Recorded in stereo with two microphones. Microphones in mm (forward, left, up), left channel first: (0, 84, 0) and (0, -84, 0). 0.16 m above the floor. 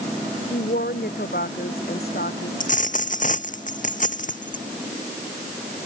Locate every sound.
0.5 s a woman speaking: 70° left (ahead or behind)
2.6 s a dropped coin: 50° left (ahead or behind)